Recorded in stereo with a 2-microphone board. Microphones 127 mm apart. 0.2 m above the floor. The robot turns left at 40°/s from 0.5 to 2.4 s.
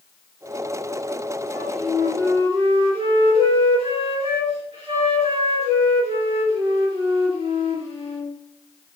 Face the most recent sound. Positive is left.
turn(degrees=-50)